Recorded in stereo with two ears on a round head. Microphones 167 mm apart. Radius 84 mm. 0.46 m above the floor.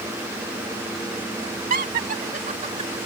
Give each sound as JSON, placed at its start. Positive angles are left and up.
{"t": 1.7, "sound": "laughter", "side_deg": -50}